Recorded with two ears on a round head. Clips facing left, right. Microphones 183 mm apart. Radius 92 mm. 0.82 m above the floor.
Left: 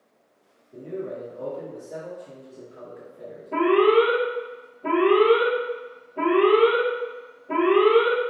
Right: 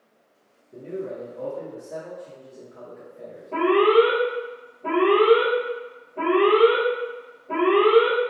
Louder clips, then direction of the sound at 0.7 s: Even; 30° right (ahead or behind).